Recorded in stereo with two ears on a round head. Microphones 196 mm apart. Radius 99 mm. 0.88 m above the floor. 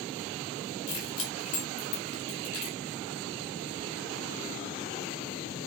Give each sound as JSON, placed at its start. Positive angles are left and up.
{"t": 0.9, "sound": "keys jangling", "side_deg": 70, "distance_m": 4.5}